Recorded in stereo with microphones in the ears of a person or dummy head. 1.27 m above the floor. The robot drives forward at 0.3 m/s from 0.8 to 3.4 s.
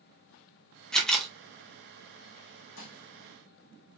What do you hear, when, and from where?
0.9 s a camera shutter: 5° left (ahead or behind), 0.9 m; by 1.3 s centre (ahead or behind), 1.0 m
2.8 s dishes clattering: 60° left (ahead or behind), 1.3 m